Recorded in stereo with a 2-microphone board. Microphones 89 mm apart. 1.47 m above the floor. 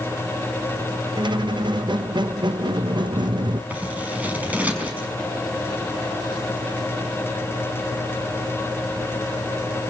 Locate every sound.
1.2 s a squeak: 60° right (ahead or behind), 1.1 m
3.7 s scissors: 15° right (ahead or behind), 5 m